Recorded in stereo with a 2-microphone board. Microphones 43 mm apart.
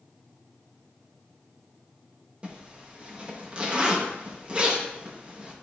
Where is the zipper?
25° right (ahead or behind), 0.6 m.